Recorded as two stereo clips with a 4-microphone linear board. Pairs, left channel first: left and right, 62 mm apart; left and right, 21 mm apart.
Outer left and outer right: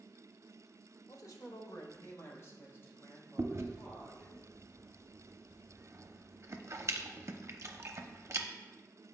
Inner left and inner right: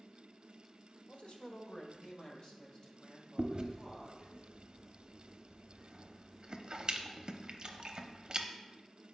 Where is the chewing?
50° right (ahead or behind), 0.6 m.